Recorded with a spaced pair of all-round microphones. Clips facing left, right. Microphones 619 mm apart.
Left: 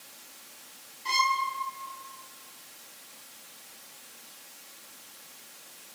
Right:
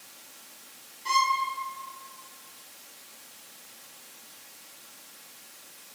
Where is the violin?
Centre (ahead or behind), 3 m.